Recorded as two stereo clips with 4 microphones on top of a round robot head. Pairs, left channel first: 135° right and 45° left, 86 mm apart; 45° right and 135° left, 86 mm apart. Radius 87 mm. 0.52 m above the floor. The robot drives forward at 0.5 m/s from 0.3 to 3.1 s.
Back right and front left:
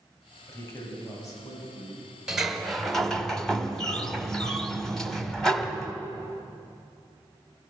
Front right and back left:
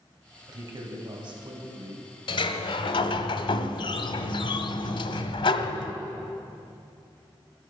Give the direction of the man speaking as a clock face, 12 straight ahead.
6 o'clock.